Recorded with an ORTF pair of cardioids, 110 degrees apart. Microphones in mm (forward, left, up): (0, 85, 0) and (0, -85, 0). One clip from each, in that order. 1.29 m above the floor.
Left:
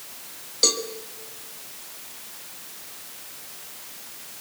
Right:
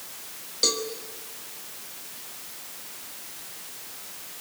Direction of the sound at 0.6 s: 20° left.